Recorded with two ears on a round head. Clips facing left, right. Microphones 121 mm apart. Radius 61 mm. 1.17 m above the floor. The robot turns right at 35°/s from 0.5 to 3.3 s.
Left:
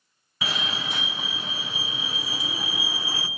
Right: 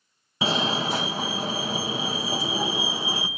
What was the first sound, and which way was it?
A fire alarm, 125° right.